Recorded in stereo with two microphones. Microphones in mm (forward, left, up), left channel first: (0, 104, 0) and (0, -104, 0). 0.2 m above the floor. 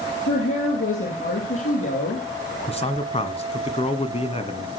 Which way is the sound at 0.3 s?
80° left.